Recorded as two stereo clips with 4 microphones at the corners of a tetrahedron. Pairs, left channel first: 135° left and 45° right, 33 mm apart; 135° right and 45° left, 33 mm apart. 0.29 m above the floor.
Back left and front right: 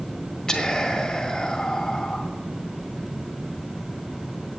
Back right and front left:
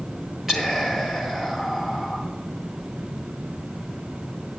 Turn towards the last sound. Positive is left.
turn(degrees=110)